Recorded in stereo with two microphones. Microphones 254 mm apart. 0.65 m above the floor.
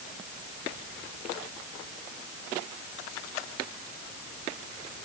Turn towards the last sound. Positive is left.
No sound to turn to.